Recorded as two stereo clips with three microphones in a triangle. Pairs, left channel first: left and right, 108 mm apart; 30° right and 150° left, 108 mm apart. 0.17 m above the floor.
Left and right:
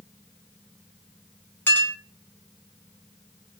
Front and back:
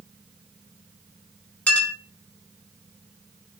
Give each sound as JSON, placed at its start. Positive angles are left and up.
{"t": 1.7, "sound": "a clink", "azimuth_deg": 35, "distance_m": 0.9}